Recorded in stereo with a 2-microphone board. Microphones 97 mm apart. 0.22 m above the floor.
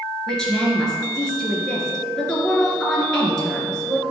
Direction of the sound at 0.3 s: 5° left (ahead or behind).